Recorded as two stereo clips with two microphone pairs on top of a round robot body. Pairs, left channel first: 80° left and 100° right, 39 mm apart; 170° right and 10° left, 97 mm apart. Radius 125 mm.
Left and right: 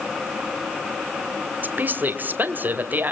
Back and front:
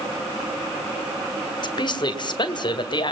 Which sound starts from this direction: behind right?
A woman speaking, at 1.6 s.